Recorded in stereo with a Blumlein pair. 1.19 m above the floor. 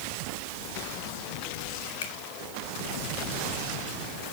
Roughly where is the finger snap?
Ahead left.